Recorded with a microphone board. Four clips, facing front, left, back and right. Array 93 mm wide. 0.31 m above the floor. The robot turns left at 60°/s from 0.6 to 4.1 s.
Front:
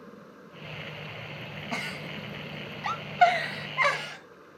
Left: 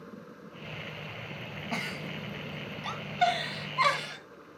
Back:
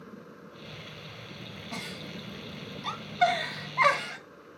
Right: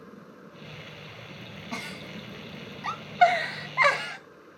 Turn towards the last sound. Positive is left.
turn(degrees=-100)